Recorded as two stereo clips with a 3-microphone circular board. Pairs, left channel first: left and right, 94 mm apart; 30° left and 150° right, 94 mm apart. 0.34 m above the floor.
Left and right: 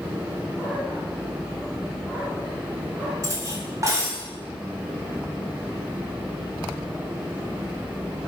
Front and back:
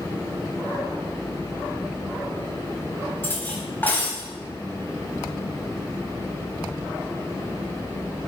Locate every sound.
3.2 s cutlery clinking: 40° right, 1.1 m